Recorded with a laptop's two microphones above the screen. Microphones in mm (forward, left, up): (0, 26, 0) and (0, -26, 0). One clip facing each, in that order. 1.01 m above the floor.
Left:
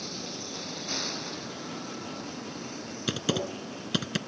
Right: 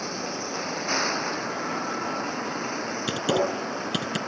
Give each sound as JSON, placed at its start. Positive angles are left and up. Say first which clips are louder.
{"t": 0.0, "sound": "a vehicle", "louder": "right 8 dB", "side_deg": -50}
{"t": 3.1, "sound": "typing on a keyboard", "louder": "right 5 dB", "side_deg": -5}